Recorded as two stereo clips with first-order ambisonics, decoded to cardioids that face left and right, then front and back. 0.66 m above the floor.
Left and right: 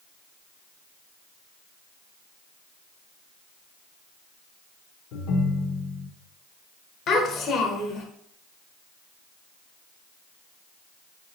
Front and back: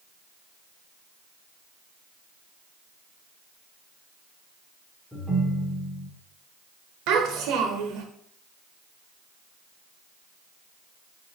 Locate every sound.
5.1 s a ringtone: 90° left, 1.0 m
7.1 s a child speaking: 145° left, 1.0 m